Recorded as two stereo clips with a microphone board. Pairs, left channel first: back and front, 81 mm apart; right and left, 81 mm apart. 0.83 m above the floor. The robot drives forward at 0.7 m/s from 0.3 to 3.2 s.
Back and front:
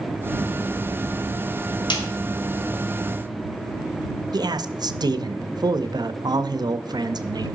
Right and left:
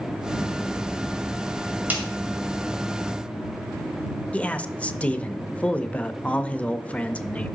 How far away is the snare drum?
About 2 m.